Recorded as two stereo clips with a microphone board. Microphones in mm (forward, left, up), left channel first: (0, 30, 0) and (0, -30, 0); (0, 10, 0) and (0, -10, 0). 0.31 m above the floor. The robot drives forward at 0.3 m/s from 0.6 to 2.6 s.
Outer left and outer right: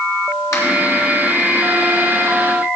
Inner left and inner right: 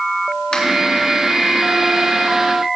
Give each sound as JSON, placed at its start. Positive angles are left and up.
{"t": 0.5, "sound": "a finger snap", "side_deg": 70, "distance_m": 3.5}